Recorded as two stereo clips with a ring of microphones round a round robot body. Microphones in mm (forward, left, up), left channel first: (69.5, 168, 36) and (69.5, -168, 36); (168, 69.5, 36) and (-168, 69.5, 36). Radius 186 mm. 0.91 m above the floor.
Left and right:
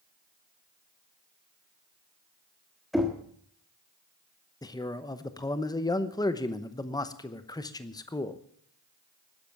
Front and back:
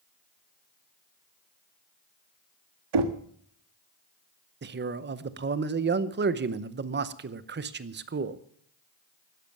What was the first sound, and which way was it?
Knocking, straight behind.